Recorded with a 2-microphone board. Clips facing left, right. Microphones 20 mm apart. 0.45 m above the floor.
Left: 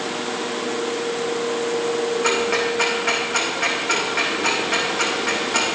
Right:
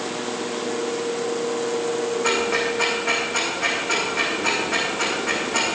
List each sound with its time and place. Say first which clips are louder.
2.2 s ticking: even; 30° left (ahead or behind), 4 m